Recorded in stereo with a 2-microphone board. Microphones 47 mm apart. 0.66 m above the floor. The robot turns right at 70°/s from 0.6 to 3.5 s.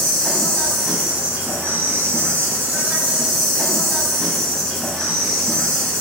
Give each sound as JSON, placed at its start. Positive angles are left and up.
{"t": 0.0, "sound": "an insect", "azimuth_deg": 160, "distance_m": 1.3}